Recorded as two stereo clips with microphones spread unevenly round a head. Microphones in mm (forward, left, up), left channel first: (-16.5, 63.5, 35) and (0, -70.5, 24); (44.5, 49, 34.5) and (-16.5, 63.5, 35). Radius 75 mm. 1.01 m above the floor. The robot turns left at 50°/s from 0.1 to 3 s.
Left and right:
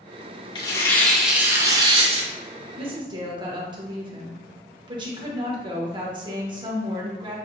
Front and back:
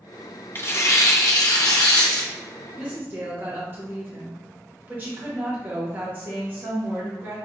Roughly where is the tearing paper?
Ahead left.